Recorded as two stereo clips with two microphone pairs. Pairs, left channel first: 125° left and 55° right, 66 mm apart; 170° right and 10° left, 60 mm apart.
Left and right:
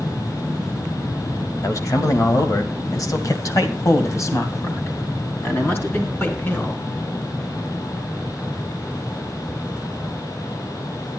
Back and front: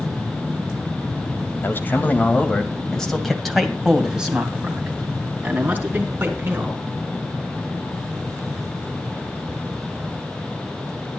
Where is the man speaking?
150° left, 1.8 m; by 6.8 s 65° left, 3.5 m.